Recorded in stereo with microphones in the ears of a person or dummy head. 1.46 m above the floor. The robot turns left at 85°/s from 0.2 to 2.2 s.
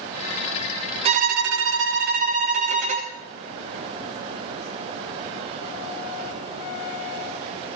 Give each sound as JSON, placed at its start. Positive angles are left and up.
{"t": 1.1, "sound": "a violin", "azimuth_deg": -40, "distance_m": 1.4}